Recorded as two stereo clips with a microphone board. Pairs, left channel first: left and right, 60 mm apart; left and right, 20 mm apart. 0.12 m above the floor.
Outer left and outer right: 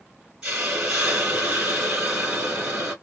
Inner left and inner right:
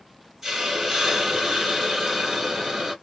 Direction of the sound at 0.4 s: 15° right (ahead or behind).